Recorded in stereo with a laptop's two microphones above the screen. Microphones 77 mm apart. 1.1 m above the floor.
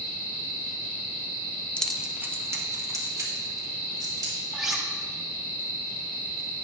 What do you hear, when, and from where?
1.8 s keys jangling: 15° left (ahead or behind), 0.6 m; by 4.3 s 55° right (ahead or behind), 3 m
4.5 s cutlery clinking: 5° right (ahead or behind), 1.2 m